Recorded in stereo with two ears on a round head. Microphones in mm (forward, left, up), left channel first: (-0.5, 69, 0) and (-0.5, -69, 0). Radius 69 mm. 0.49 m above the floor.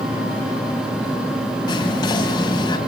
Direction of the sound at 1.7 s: 25° left (ahead or behind).